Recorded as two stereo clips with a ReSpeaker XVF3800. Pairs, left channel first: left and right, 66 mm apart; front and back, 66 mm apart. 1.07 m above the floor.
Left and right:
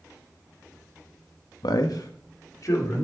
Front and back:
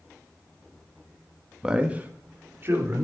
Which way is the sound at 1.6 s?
100° left.